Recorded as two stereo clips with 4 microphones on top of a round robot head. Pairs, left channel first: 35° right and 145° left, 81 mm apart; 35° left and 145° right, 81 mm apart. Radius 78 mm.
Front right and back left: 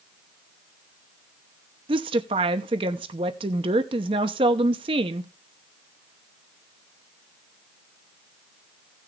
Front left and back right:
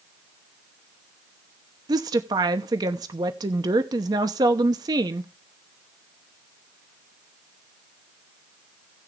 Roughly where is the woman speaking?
Behind.